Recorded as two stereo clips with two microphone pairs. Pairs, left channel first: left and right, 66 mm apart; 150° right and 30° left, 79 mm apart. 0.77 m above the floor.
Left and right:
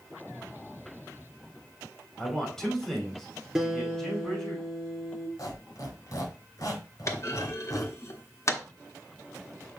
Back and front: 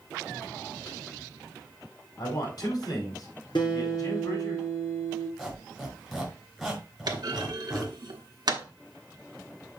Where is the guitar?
170° right, 3.5 m.